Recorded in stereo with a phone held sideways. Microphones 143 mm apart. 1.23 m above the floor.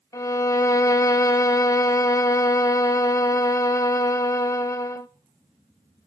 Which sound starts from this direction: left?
A violin, at 0.1 s.